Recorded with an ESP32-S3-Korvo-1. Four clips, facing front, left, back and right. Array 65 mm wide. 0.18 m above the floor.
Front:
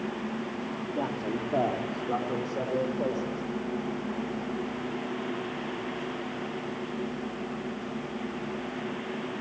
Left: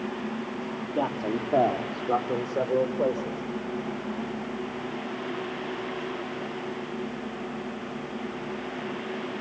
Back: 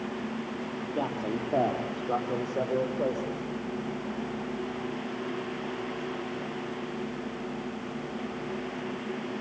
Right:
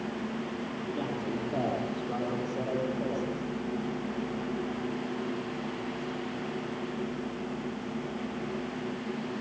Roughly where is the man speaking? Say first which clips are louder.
Left 7 dB, back 1 dB; left.